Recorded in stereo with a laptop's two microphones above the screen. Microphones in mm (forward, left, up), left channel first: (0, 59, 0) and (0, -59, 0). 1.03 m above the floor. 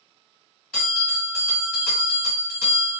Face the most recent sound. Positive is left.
turn(degrees=5)  # may be behind; listen again after turning